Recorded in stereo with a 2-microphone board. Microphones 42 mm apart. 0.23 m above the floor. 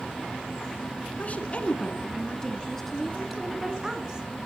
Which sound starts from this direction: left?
A woman speaking, at 1.2 s.